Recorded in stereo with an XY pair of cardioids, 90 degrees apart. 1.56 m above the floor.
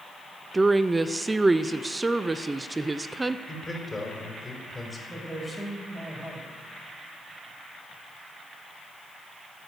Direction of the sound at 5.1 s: 25° right.